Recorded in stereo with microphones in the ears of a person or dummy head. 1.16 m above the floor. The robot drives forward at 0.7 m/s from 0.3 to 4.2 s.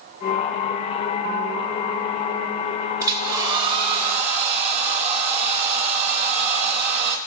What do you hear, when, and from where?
3.0 s a hair dryer: 20° right (ahead or behind), 1.6 m; by 7.2 s 40° right (ahead or behind), 0.9 m